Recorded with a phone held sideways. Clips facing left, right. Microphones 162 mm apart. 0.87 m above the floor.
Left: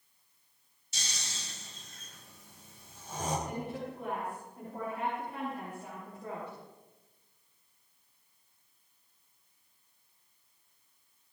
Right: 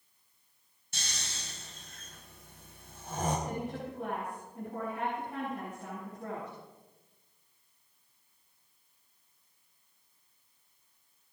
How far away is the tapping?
No tapping in this recording.